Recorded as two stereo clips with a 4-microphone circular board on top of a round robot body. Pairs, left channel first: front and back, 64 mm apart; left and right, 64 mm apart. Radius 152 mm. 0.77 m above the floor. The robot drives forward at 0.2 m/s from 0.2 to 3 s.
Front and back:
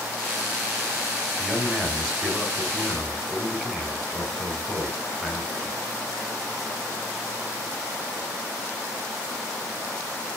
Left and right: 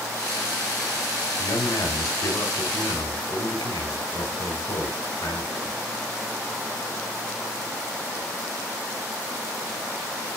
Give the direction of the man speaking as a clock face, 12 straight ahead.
9 o'clock.